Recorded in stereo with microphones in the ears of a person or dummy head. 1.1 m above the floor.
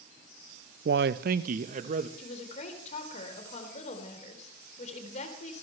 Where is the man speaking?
50° right (ahead or behind), 0.6 m; by 2.1 s 35° right (ahead or behind), 1.3 m.